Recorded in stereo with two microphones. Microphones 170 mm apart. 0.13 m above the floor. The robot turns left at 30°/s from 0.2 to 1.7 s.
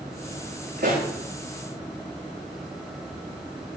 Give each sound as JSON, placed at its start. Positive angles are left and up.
{"t": 0.8, "sound": "a pop", "side_deg": -60, "distance_m": 8.0}